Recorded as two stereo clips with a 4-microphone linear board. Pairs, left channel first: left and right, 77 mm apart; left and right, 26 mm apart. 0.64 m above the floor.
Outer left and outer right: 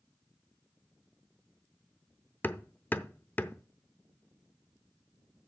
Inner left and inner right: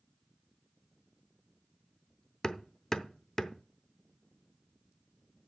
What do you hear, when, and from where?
2.4 s hammering: 25° left (ahead or behind), 0.6 m